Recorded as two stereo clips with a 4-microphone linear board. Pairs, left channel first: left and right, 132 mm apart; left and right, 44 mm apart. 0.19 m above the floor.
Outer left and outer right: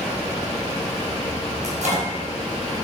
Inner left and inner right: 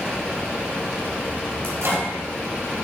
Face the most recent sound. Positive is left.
turn(degrees=-65)  # may be behind; listen again after turning